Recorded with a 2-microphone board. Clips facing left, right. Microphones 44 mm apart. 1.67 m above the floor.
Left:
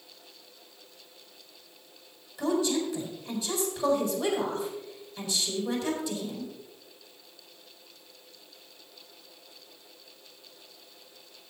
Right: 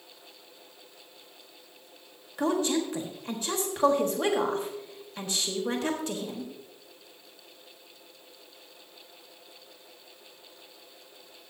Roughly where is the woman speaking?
Right.